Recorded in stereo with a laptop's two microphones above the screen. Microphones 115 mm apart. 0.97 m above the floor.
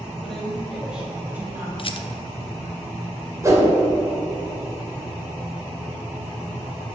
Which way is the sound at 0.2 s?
5° left (ahead or behind).